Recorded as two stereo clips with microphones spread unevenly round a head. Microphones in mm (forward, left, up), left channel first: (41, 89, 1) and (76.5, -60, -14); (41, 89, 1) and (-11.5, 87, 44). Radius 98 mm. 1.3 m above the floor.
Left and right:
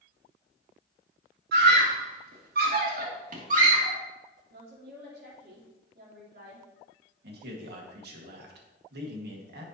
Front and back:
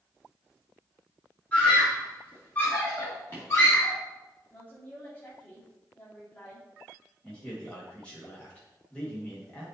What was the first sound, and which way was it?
A scream, 75° right.